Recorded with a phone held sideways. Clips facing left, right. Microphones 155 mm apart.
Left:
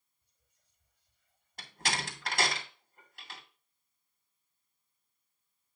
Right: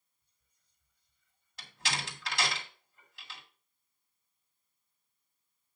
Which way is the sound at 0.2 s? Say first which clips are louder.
Left 8 dB; 70° left (ahead or behind).